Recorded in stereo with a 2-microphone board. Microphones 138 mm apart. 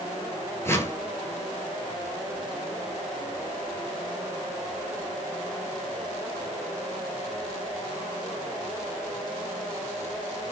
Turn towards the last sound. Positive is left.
turn(degrees=20)  # may be behind; listen again after turning